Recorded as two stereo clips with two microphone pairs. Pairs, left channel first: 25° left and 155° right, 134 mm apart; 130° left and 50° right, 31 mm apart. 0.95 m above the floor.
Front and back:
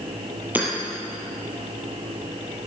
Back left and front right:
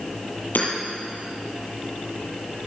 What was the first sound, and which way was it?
Hammering, 125° left.